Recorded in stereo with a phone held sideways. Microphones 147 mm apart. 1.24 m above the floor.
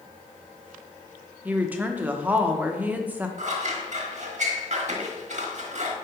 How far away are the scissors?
About 1.2 m.